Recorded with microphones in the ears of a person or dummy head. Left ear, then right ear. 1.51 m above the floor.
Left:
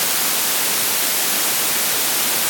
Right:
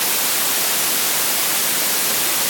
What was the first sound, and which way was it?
Only background noise.